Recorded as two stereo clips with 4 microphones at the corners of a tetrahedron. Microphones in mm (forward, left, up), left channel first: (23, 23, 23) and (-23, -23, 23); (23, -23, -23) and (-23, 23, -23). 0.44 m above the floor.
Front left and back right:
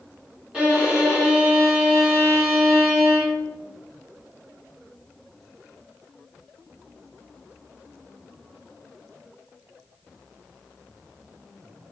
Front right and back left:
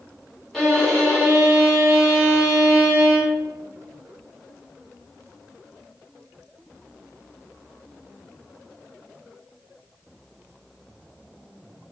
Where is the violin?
115° right, 1.3 m.